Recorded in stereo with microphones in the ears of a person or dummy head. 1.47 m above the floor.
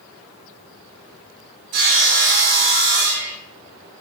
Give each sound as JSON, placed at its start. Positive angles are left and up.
{"t": 1.7, "sound": "sawing", "side_deg": -55, "distance_m": 1.9}